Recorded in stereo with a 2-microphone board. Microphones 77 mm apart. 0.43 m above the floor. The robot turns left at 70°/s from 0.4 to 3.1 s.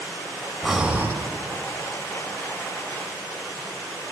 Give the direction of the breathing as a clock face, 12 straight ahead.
12 o'clock.